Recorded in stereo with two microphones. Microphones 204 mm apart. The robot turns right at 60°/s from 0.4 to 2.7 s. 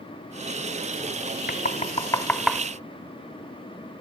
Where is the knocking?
50° left (ahead or behind), 1.4 m; by 2.6 s 10° right (ahead or behind), 1.4 m.